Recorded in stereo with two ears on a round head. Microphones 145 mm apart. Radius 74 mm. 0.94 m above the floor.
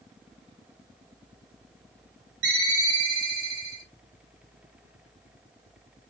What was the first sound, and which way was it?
A ringtone, 75° right (ahead or behind).